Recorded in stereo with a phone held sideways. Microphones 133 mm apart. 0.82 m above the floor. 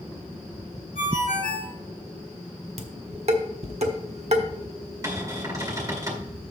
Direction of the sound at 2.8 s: 55° right (ahead or behind).